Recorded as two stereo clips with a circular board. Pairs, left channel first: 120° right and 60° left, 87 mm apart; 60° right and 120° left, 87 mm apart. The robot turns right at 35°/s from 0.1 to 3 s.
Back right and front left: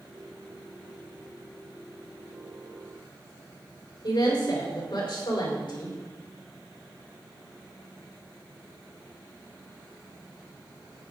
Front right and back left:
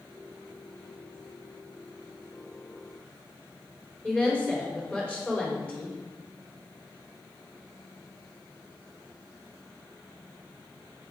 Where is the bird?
I don't hear a bird.